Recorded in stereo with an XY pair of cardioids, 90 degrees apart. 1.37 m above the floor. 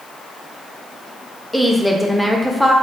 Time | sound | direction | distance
1.5 | a woman speaking | 5° left | 0.5 m